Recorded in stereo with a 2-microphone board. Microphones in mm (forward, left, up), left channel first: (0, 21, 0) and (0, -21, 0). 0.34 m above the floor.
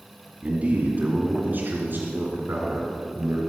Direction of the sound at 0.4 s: 35° right (ahead or behind).